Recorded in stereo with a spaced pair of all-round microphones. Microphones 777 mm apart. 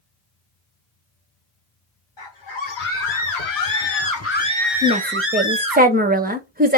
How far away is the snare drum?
I don't hear a snare drum.